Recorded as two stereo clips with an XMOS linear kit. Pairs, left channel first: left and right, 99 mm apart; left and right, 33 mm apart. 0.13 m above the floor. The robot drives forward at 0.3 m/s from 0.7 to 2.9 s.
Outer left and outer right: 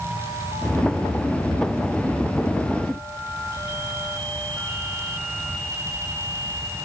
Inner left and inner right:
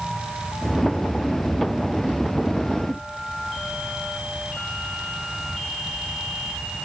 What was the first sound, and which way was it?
Only background noise.